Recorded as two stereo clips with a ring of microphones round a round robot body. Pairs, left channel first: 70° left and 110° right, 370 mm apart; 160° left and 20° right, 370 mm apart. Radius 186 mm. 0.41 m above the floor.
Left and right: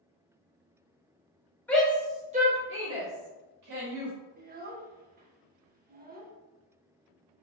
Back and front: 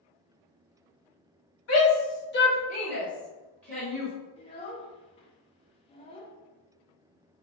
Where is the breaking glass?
I don't hear breaking glass.